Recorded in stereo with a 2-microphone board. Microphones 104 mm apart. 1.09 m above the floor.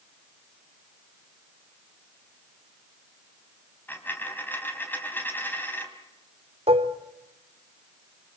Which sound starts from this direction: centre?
A dropped coin, at 3.9 s.